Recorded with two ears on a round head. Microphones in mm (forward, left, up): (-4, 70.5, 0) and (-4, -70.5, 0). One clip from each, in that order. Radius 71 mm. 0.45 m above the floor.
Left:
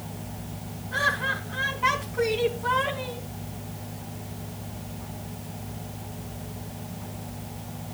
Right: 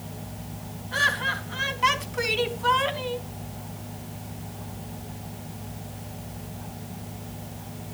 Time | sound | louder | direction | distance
0.9 | laughter | right 1 dB | 70° right (ahead or behind) | 3.5 m